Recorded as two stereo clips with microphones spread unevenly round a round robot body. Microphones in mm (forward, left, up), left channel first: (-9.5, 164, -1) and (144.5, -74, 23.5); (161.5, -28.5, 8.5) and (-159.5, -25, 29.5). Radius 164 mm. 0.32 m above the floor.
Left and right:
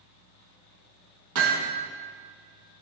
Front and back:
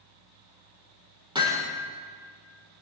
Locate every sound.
1.4 s hammering: 105° right, 5 m